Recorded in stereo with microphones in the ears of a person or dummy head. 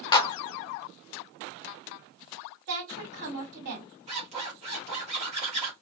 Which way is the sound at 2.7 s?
60° right (ahead or behind).